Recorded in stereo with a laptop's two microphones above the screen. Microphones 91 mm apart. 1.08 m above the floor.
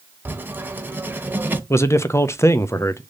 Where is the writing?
20° right (ahead or behind), 1.0 m.